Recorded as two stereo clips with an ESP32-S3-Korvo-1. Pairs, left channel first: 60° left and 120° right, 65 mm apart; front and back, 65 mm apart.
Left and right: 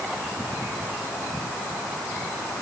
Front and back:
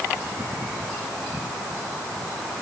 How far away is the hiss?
No hiss in this recording.